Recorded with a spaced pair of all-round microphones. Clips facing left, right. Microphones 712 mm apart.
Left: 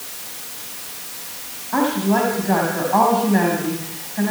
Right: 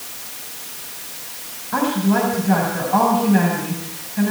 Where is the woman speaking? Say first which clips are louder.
Even; 35° right (ahead or behind), 6 m.